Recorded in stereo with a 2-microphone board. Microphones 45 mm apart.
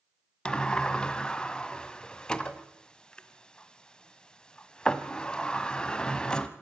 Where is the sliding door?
20° left (ahead or behind), 1.2 m.